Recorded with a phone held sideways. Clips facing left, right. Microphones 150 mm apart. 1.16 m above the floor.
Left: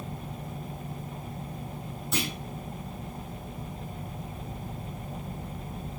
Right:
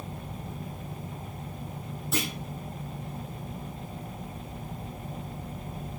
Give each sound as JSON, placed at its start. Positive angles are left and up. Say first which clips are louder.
{"t": 2.1, "sound": "a clunk", "louder": "right 1 dB", "side_deg": 0, "distance_m": 4.5}